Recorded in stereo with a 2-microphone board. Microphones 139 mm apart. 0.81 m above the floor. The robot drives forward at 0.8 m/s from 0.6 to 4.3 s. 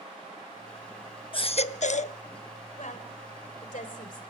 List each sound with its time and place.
1.3 s a baby crying: 40° left (ahead or behind), 0.7 m; by 2.2 s 50° left (ahead or behind), 0.5 m
2.8 s a woman speaking: 60° left (ahead or behind), 3.5 m; by 4.2 s 75° left (ahead or behind), 3.5 m